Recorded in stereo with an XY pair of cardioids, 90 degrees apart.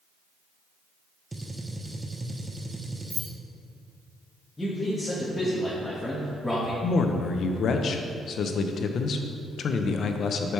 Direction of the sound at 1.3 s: 20° right.